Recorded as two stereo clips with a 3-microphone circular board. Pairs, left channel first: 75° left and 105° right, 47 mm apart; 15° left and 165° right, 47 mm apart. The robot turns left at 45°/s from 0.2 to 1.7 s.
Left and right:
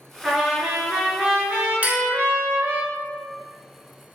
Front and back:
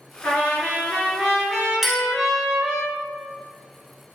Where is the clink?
85° right, 0.9 m.